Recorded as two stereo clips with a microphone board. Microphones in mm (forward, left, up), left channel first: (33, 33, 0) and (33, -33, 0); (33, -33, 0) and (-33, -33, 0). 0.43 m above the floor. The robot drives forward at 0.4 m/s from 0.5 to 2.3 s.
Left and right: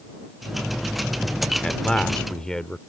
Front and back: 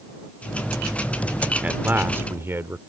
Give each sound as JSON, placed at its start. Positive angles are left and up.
{"t": 1.6, "sound": "a man speaking", "azimuth_deg": 155}